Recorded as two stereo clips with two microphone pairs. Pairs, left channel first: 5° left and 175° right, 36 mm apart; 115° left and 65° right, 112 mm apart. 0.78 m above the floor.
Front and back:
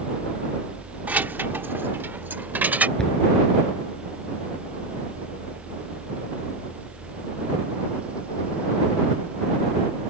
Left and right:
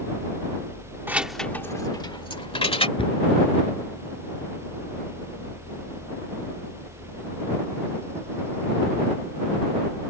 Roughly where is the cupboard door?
Left.